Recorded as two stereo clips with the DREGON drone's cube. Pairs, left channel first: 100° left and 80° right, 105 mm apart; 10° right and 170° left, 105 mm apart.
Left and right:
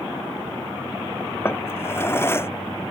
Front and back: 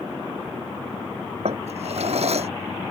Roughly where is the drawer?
Behind.